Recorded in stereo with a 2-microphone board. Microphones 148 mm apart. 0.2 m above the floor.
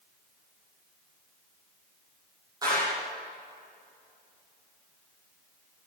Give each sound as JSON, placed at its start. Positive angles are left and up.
{"t": 2.6, "sound": "a clap", "side_deg": -25, "distance_m": 7.0}